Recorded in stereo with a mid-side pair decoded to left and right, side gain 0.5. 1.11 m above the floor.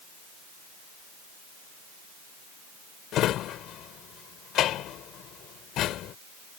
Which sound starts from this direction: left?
A drawer, at 3.1 s.